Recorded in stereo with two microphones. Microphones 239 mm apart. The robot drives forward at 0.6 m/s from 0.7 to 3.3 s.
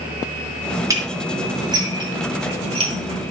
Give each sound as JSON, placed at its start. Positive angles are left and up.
{"t": 0.9, "sound": "dishes clattering", "side_deg": -15, "distance_m": 2.5}